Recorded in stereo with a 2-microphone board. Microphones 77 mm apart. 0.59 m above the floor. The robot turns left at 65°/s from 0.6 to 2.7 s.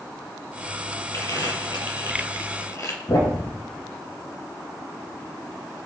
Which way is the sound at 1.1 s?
35° left (ahead or behind).